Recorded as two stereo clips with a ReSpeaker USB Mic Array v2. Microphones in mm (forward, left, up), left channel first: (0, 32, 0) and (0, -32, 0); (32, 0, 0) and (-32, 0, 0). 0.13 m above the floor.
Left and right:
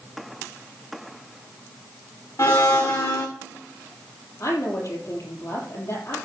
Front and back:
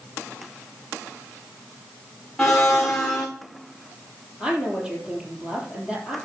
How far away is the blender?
About 2.5 m.